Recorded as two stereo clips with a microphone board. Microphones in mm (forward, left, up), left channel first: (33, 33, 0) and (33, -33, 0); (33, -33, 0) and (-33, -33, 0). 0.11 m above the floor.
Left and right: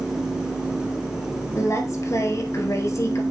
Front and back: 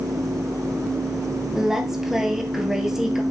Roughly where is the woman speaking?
Left.